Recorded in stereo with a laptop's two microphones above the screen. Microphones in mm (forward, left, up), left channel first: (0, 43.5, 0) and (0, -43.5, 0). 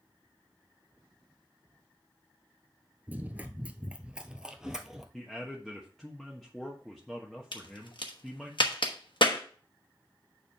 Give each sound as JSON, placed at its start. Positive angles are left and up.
{"t": 3.1, "sound": "running footsteps", "side_deg": -20, "distance_m": 0.9}
{"t": 5.1, "sound": "a man speaking", "side_deg": 5, "distance_m": 1.3}
{"t": 7.5, "sound": "a crack", "side_deg": 65, "distance_m": 1.1}